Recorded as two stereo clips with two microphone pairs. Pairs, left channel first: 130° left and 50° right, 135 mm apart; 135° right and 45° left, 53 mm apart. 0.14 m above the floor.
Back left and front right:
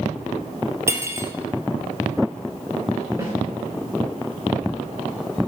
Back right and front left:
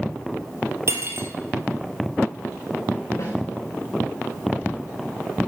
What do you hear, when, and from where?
0.9 s cutlery clinking: 15° left, 1.8 m
3.2 s a snare drum: 120° right, 5 m